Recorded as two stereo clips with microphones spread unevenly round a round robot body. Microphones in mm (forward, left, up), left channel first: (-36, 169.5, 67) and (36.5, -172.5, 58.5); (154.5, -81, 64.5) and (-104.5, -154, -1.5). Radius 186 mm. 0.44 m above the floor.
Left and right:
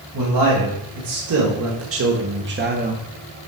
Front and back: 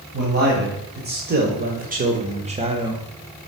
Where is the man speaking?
120° right, 2.5 m; by 3.0 s 130° right, 0.9 m.